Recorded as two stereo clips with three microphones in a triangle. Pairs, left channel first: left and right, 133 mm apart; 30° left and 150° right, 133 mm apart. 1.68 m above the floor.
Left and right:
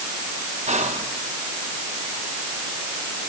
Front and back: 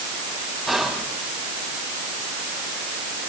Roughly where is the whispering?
Ahead right.